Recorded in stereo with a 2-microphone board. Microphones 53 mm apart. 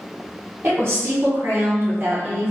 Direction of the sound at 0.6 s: 50° right (ahead or behind).